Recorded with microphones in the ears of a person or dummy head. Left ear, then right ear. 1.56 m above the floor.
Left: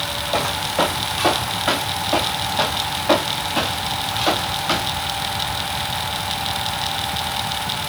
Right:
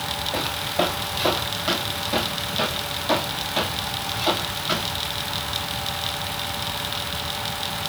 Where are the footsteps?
45° left (ahead or behind), 3 m; by 5.0 s 15° left (ahead or behind), 7.5 m.